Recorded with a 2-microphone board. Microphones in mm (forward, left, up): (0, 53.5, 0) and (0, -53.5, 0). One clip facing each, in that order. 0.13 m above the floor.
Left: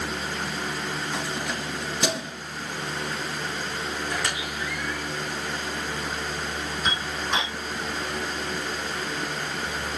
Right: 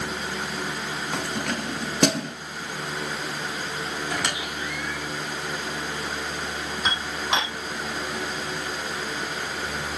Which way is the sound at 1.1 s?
55° right (ahead or behind).